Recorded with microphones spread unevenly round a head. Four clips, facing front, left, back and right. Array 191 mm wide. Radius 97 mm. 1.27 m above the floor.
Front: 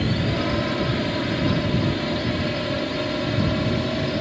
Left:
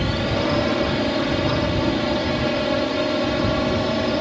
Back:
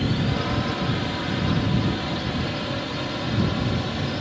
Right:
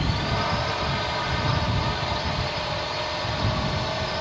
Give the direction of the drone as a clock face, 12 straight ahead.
9 o'clock.